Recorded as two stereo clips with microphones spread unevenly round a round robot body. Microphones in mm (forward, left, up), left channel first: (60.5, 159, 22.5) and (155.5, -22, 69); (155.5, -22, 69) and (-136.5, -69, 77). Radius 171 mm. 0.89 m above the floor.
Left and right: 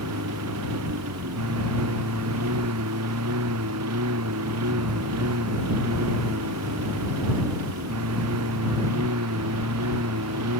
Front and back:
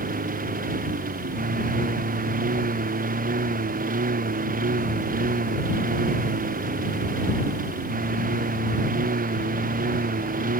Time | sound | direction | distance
0.0 | a lawn mower | 105° right | ?